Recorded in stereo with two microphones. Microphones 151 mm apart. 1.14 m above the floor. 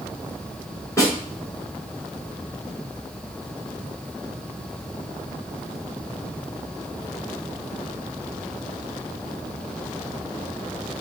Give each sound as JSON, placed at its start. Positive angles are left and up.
{"t": 1.0, "sound": "a snare drum", "side_deg": 20, "distance_m": 2.5}